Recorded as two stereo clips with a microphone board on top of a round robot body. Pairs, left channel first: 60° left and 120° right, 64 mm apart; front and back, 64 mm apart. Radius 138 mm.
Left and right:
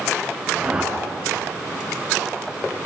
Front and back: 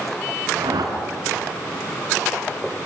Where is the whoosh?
165° left, 4 m.